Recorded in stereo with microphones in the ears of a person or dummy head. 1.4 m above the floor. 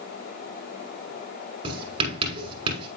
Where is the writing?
30° right (ahead or behind), 5 m.